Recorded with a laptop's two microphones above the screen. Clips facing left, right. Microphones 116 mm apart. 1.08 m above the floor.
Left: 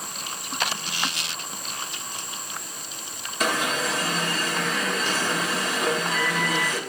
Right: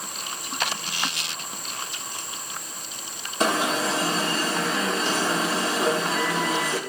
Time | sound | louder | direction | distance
3.4 | an alarm | right 2 dB | 30° right (ahead or behind) | 1.3 m